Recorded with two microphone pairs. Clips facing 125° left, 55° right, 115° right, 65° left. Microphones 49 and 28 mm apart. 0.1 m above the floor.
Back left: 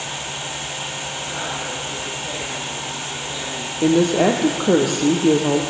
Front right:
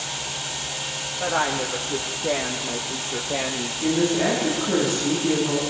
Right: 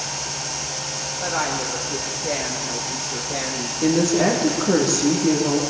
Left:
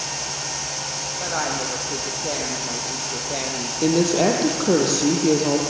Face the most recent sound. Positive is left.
turn(degrees=130)